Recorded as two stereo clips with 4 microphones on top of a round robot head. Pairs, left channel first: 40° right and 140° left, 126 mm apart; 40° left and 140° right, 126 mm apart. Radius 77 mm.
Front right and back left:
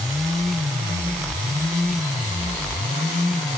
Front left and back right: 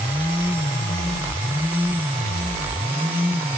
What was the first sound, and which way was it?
Only background noise.